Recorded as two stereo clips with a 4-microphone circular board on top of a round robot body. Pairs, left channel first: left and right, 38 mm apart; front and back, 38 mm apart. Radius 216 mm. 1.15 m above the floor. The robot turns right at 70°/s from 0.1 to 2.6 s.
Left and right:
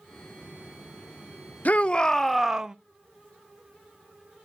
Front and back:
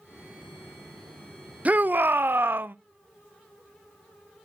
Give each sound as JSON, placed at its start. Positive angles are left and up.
{"t": 1.6, "sound": "a shout", "azimuth_deg": 130, "distance_m": 0.6}